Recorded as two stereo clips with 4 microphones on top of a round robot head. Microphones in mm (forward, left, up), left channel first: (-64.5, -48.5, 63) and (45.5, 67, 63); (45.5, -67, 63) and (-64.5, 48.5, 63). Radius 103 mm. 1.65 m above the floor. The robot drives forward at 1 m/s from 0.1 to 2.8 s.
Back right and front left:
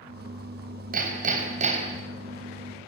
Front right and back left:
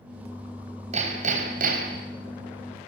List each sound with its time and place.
0.9 s hammering: 80° left, 4 m; by 2.1 s 100° left, 4 m